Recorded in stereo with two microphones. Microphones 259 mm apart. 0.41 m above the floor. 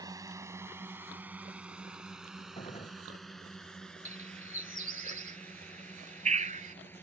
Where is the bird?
30° right (ahead or behind).